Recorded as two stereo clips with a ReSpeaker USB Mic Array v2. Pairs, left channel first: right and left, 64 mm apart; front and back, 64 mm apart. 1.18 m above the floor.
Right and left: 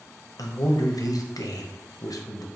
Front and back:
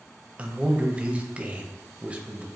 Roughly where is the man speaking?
Right.